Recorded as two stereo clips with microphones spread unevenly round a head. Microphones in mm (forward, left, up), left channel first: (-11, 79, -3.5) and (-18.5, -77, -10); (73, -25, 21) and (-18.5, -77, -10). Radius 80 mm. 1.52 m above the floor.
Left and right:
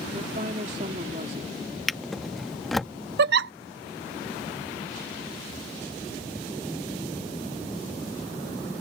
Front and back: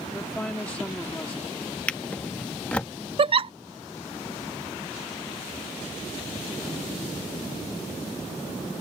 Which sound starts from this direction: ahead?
A drawer, at 1.9 s.